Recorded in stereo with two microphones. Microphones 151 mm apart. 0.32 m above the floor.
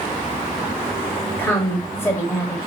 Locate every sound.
1.4 s a woman speaking: 15° left (ahead or behind), 0.9 m